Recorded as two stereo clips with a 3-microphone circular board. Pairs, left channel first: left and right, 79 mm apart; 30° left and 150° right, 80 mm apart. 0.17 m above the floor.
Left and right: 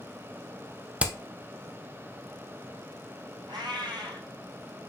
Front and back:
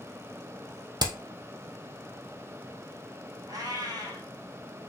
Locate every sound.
1.0 s hammering: 160° right, 0.7 m
3.5 s a cat meowing: 110° right, 1.3 m